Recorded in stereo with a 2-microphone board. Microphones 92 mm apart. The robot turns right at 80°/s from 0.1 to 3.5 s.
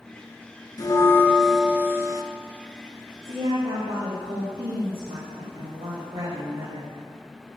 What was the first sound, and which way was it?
A bell, 120° left.